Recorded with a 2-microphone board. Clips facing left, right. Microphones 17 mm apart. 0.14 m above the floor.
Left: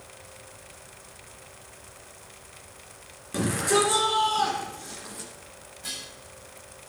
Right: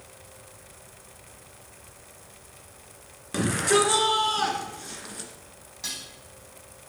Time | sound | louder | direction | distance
3.3 | a shout | right 1 dB | 25° right (ahead or behind) | 2 m
5.8 | dishes clattering | right 1 dB | 75° right (ahead or behind) | 4.5 m